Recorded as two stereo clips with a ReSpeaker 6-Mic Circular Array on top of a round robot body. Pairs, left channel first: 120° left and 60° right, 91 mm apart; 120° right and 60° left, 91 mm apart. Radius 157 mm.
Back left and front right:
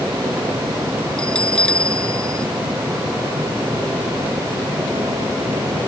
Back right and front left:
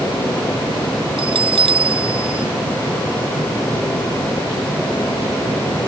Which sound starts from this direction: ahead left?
A bell, at 1.2 s.